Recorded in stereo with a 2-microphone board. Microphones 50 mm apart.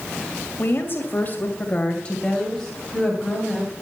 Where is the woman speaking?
50° left (ahead or behind), 2.5 m; by 3.7 s centre (ahead or behind), 3.5 m.